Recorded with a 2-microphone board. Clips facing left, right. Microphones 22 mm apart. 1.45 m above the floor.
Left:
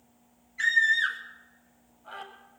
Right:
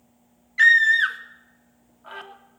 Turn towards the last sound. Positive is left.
turn(degrees=-70)  # may be behind; listen again after turning